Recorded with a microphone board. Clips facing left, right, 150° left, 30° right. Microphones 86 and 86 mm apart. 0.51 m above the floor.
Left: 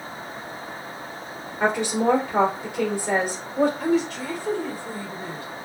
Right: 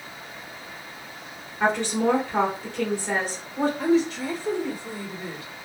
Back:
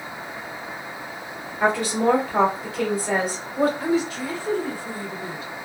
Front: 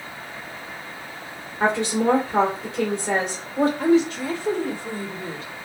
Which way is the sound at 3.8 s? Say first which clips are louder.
Right 1 dB, front 5 dB; 25° right.